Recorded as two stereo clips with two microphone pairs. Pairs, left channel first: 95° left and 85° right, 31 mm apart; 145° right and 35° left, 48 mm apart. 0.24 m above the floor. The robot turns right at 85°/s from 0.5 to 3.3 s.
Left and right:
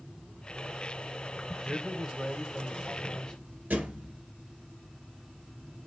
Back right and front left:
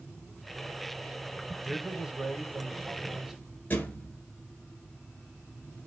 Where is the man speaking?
40° right, 1.0 m; by 3.3 s 100° left, 1.0 m.